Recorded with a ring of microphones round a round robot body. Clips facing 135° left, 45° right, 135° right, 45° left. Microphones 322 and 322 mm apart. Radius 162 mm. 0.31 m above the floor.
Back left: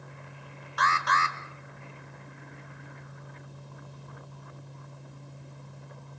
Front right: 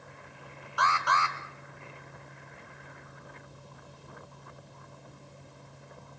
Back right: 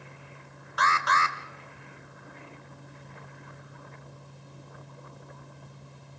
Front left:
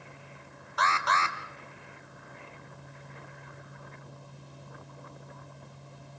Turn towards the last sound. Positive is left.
turn(degrees=175)